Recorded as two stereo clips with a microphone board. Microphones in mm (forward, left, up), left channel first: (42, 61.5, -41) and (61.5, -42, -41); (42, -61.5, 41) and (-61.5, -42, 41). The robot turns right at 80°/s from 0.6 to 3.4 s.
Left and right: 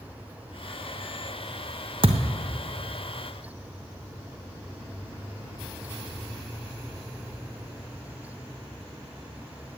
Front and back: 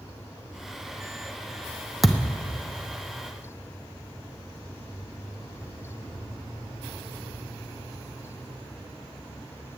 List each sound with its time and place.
2.0 s a thud: 105° right, 1.0 m; by 2.4 s 75° right, 1.0 m